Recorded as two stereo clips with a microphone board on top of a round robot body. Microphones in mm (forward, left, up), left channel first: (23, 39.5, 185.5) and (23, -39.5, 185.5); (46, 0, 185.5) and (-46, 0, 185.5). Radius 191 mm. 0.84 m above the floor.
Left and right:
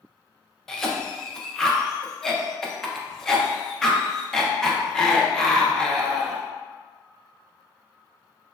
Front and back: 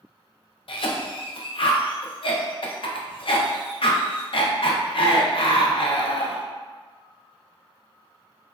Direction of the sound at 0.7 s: 5° left.